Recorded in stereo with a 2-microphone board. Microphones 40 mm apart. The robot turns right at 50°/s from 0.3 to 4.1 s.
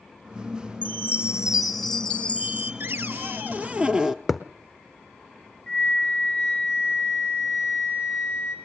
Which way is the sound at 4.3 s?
10° right (ahead or behind).